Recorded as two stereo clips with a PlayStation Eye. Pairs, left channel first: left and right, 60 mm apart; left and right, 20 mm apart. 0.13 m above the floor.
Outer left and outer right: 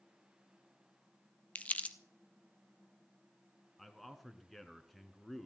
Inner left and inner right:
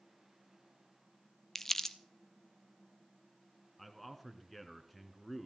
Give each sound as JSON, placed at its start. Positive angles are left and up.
{"t": 1.6, "sound": "crumpling", "side_deg": 25, "distance_m": 0.7}
{"t": 3.8, "sound": "a man speaking", "side_deg": 0, "distance_m": 1.5}